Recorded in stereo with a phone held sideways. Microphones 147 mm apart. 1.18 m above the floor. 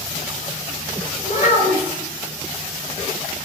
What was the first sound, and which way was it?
A child speaking, 65° left (ahead or behind).